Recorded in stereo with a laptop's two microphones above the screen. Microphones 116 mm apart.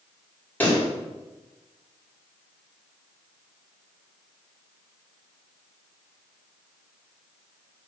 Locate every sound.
0.6 s a pop: 15° left (ahead or behind), 1.8 m